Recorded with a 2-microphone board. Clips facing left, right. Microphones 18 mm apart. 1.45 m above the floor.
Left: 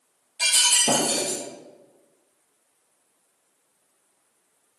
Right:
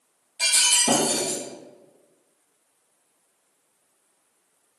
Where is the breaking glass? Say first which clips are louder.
Even; 30° left (ahead or behind), 1.8 m.